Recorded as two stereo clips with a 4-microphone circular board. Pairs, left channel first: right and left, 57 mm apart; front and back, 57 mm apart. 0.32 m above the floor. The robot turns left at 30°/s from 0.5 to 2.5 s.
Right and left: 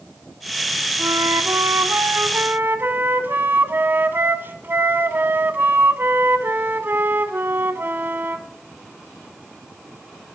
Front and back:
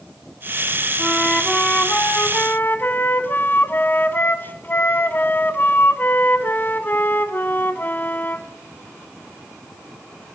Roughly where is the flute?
Left.